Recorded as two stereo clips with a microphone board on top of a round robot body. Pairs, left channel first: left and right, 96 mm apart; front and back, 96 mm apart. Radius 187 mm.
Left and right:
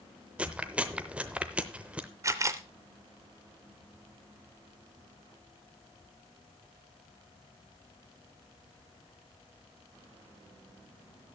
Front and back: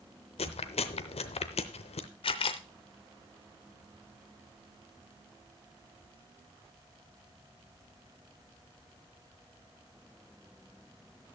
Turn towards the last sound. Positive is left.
turn(degrees=-30)